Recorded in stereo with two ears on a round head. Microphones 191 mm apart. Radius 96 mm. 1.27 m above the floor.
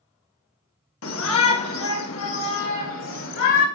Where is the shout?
75° left (ahead or behind), 1.6 m; by 3.6 s 70° left (ahead or behind), 3 m.